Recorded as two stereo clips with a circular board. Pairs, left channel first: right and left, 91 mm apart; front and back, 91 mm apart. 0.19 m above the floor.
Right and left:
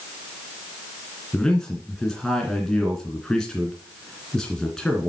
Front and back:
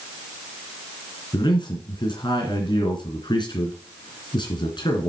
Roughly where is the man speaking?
Ahead.